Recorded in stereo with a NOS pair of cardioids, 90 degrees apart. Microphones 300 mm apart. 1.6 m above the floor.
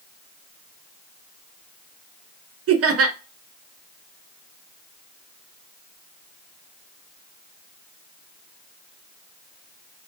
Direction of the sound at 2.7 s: 55° right.